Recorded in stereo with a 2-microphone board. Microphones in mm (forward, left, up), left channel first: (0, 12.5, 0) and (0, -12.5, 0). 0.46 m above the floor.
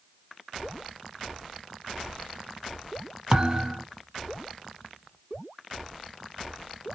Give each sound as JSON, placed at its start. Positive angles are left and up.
{"t": 3.3, "sound": "a thud", "side_deg": -30, "distance_m": 0.5}